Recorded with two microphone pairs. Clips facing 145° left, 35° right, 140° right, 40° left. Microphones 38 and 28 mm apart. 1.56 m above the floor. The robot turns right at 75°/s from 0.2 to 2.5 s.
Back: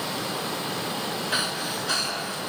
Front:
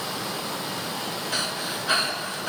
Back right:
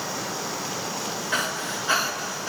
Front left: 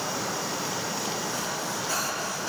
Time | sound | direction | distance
1.3 | breathing | 150° right | 4 m